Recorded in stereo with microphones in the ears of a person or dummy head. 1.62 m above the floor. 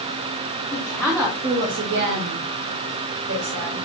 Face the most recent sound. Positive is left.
turn(degrees=-65)  # may be behind; listen again after turning